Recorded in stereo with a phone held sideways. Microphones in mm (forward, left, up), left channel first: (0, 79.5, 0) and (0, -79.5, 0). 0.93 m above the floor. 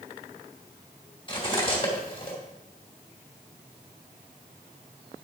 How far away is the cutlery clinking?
About 2.5 m.